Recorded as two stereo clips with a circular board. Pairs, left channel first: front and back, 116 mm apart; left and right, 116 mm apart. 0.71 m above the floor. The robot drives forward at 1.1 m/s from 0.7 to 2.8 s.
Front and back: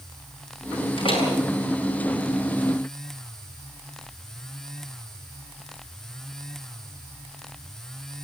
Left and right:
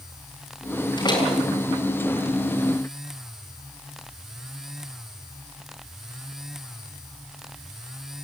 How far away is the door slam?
About 7.5 m.